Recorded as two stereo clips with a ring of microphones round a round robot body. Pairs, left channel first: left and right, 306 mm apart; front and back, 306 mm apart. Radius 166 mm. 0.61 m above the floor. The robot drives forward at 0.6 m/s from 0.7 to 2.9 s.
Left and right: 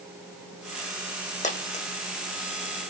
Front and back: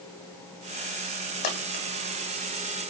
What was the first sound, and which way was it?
A dropped coin, 25° left.